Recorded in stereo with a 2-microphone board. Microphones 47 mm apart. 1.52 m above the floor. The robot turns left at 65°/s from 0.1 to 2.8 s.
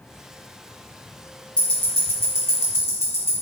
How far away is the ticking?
About 0.9 m.